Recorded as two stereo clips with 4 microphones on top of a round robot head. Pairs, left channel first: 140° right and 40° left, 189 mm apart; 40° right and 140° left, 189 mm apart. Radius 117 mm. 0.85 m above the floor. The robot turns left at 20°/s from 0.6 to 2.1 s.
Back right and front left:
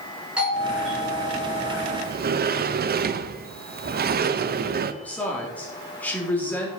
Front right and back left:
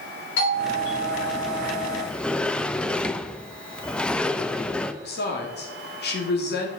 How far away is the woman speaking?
About 2.5 m.